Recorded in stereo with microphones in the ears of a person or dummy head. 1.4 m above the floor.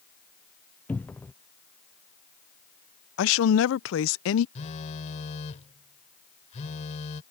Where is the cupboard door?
10° left (ahead or behind).